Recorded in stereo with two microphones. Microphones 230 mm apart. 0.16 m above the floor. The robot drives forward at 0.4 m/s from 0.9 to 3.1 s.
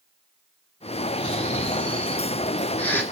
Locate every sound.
1.2 s snoring: 5° left (ahead or behind), 2.5 m